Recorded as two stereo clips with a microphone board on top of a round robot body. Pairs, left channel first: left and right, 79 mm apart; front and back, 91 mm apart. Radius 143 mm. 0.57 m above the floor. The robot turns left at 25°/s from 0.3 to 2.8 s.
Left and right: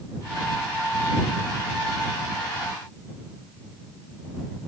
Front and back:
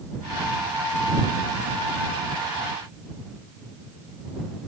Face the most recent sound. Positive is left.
No sound to turn to.